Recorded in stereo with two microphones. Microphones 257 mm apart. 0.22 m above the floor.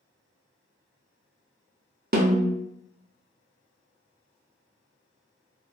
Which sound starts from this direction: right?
A snare drum, at 2.1 s.